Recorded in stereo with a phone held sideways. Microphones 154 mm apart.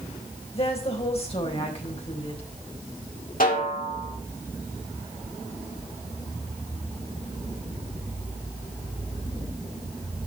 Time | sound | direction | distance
0.5 | a woman speaking | 40° left (ahead or behind) | 4 m
3.4 | a snare drum | 65° left (ahead or behind) | 4 m